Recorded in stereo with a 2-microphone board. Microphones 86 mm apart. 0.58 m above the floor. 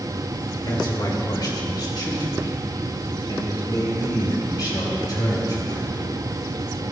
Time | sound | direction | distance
0.7 | a man speaking | 55° left (ahead or behind) | 2 m